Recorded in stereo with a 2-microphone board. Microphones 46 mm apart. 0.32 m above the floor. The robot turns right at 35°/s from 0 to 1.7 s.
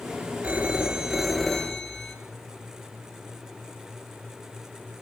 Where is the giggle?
I don't hear a giggle.